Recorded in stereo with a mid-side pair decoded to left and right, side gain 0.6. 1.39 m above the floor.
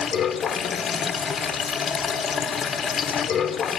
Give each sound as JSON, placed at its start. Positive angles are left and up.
{"t": 0.0, "sound": "running water", "azimuth_deg": 35, "distance_m": 0.8}